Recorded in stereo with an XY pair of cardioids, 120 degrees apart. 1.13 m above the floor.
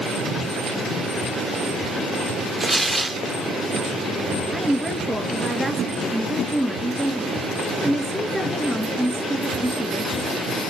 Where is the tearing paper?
5° right, 0.7 m.